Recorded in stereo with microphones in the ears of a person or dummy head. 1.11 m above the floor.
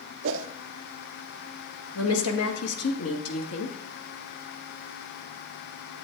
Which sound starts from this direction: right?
A whoosh, at 0.2 s.